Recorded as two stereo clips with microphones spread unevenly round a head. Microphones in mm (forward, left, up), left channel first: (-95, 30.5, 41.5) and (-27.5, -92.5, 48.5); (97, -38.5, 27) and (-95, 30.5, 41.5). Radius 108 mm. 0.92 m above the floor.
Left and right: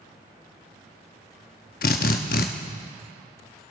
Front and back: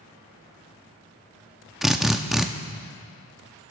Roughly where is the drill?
Left.